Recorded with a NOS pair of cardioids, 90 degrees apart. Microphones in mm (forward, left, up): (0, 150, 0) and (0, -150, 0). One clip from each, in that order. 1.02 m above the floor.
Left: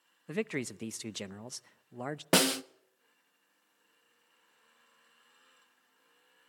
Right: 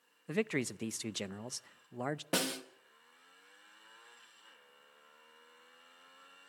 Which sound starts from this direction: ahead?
A man speaking, at 0.3 s.